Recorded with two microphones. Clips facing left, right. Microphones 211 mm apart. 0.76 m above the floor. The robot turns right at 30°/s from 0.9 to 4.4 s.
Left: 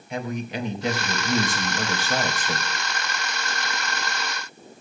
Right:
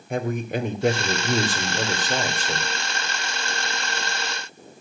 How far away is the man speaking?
About 2.5 m.